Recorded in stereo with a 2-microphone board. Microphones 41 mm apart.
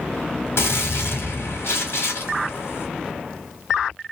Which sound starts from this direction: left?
A gunshot, at 0.6 s.